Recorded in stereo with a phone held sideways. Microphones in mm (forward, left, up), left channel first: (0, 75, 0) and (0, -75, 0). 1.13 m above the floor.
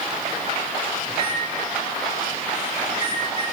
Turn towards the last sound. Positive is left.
turn(degrees=40)  # may be behind; listen again after turning